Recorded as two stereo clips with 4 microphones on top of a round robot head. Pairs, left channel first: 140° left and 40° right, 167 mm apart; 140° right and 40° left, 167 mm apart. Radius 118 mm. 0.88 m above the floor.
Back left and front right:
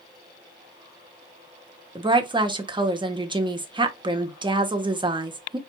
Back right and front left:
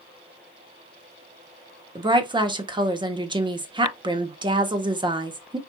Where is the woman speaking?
Straight ahead, 1.0 m.